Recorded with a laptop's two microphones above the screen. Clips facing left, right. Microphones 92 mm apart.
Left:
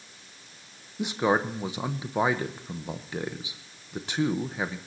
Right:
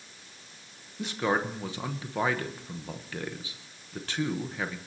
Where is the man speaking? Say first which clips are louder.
Left 3 dB; 20° left (ahead or behind), 0.9 m.